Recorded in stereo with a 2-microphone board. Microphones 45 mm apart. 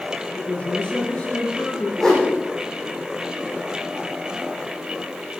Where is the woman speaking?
30° left (ahead or behind), 6 m.